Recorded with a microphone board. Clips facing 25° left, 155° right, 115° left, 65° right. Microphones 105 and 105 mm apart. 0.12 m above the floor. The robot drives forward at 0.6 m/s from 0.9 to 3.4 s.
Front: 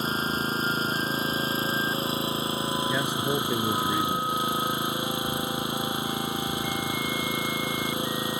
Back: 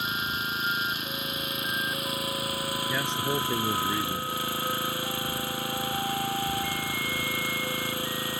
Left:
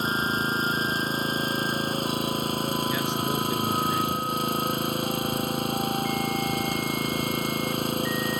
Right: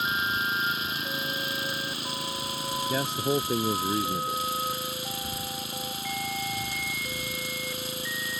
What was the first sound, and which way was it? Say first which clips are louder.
An engine running: front 4 dB, left 3 dB; 70° left.